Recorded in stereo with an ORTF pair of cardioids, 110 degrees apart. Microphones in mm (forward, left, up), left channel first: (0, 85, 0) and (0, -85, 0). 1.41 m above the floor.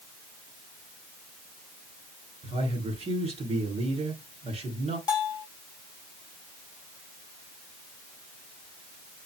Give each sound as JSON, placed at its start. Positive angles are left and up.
{"t": 2.4, "sound": "a man speaking", "azimuth_deg": -35, "distance_m": 3.5}
{"t": 5.1, "sound": "a bell", "azimuth_deg": 25, "distance_m": 1.9}